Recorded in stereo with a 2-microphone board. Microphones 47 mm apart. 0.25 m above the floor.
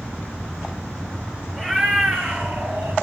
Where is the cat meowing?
15° right (ahead or behind), 2 m; by 2.9 s 60° right (ahead or behind), 2.5 m.